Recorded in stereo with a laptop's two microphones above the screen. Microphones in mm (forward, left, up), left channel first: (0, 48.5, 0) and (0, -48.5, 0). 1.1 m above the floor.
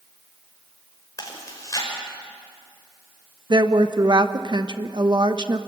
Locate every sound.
1.2 s chewing: 35° left (ahead or behind), 5.5 m
3.5 s a woman speaking: 50° right (ahead or behind), 1.1 m